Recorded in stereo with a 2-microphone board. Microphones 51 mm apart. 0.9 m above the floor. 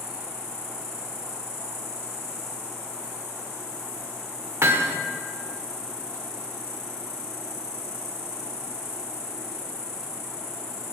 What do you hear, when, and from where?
0.0 s an insect: 75° left (ahead or behind), 2 m
4.6 s hammering: 65° right (ahead or behind), 0.9 m